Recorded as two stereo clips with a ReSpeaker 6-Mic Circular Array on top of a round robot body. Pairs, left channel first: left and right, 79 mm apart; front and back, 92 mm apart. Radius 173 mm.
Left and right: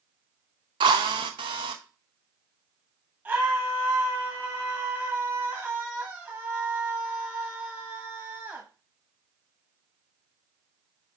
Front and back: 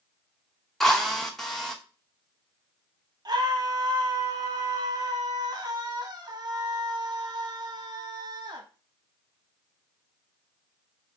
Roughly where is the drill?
Right.